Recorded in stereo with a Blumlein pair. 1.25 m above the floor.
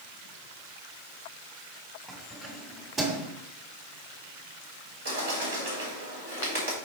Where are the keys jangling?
10° right, 3 m; by 3.3 s 25° right, 2.5 m.